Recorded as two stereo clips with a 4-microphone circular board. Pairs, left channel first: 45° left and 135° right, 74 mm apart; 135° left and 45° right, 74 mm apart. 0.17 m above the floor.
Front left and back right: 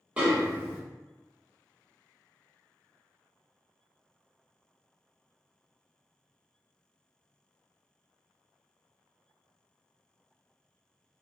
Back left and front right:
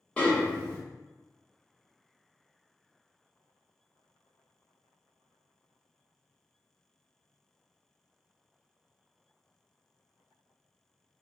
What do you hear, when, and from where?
0.2 s a snare drum: straight behind, 0.8 m